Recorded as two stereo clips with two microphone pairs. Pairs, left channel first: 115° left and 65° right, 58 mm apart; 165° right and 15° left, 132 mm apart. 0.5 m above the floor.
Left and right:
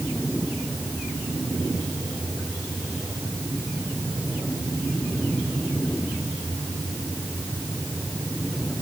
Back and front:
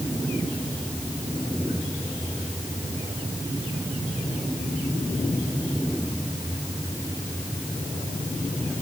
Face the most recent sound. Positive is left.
No sound to turn to.